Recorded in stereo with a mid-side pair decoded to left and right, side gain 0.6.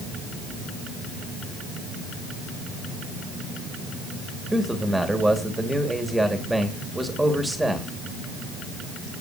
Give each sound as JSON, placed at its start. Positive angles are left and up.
{"t": 4.5, "sound": "a man speaking", "azimuth_deg": -5, "distance_m": 2.5}